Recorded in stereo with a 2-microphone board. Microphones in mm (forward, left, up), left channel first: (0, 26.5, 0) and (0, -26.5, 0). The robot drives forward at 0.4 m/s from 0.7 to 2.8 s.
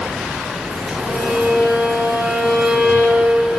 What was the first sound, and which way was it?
A violin, 5° right (ahead or behind).